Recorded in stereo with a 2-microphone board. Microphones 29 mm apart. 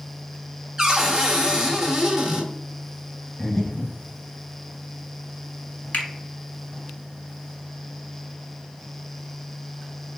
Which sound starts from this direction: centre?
Breathing, at 3.4 s.